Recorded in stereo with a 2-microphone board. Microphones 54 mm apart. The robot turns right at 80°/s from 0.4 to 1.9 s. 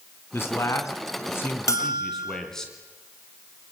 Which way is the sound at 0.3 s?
50° left.